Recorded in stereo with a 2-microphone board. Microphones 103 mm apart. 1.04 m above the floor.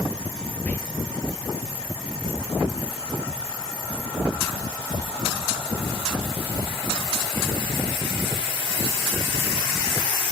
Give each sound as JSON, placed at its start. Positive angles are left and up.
{"t": 0.7, "sound": "whispering", "side_deg": 15, "distance_m": 0.9}